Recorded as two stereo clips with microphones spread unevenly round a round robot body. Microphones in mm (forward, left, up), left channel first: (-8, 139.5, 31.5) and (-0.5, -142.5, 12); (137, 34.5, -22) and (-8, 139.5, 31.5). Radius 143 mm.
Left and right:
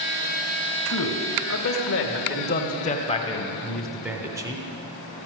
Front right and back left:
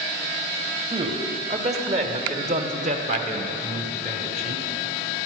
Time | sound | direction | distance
0.9 | a man speaking | 80° left | 1.8 m